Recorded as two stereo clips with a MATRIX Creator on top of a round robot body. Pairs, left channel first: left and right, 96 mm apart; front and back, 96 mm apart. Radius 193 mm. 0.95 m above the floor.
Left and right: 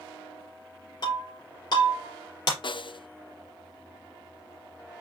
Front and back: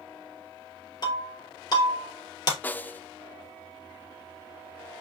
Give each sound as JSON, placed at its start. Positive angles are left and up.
{"t": 1.0, "sound": "breaking glass", "azimuth_deg": 45, "distance_m": 3.5}
{"t": 2.6, "sound": "a snare drum", "azimuth_deg": 70, "distance_m": 0.8}